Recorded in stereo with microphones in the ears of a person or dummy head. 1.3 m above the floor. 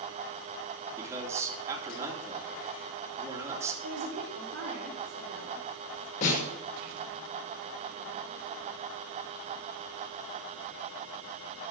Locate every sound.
1.0 s a man speaking: 15° right (ahead or behind), 3 m
3.8 s a woman speaking: 85° right, 3.5 m
6.2 s a snare drum: 40° left (ahead or behind), 5.5 m